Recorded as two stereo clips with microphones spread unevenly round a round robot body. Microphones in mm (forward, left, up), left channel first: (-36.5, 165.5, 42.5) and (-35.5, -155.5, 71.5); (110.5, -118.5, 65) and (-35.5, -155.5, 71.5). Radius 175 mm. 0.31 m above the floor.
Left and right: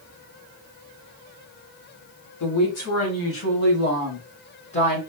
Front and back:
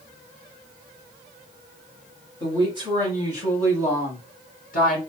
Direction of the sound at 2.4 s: 75° left.